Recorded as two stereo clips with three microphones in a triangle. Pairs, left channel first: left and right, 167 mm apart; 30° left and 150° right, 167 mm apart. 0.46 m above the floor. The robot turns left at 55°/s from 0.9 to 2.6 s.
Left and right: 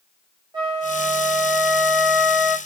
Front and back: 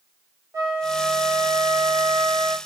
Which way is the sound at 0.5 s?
100° right.